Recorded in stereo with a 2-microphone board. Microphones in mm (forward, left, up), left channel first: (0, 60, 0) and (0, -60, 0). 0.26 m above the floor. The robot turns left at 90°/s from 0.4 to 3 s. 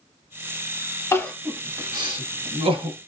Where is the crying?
25° left (ahead or behind), 0.7 m; by 3.0 s 35° right (ahead or behind), 0.7 m.